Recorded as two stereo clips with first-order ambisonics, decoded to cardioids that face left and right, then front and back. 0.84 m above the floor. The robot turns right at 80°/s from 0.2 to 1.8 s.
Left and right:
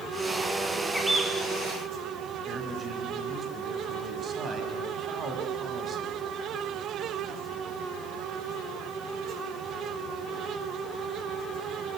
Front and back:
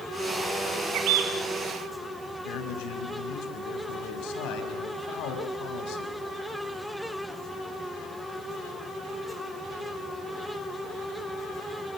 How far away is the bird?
About 3.5 m.